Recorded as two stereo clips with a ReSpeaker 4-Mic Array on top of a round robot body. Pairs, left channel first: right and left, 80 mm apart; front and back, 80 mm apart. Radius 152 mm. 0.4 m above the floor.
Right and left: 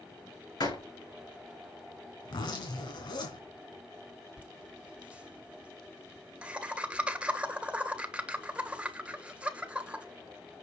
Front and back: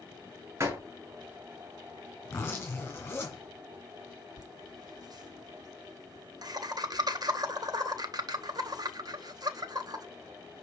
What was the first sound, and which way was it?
A door slam, 120° right.